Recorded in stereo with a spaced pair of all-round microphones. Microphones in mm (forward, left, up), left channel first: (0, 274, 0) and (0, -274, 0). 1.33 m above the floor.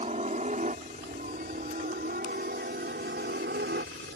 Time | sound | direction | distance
0.0 | a helicopter | 10° right (ahead or behind) | ?